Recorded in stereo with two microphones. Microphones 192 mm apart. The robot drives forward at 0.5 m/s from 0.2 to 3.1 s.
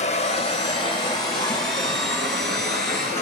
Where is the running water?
35° left (ahead or behind), 0.8 m; by 3.2 s 10° left (ahead or behind), 2 m.